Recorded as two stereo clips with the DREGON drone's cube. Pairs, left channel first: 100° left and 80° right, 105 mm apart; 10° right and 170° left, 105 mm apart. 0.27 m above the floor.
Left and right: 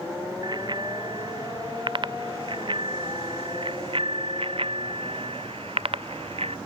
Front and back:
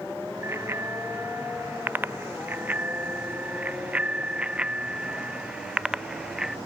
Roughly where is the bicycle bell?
Behind right.